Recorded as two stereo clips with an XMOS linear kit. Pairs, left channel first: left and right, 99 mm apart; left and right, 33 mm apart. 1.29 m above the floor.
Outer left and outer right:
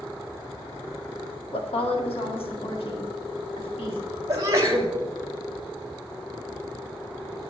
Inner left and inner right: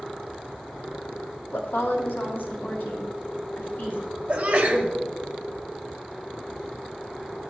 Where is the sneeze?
35° right (ahead or behind), 2 m.